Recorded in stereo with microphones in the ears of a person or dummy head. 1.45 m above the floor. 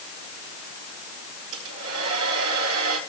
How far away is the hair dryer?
About 5 m.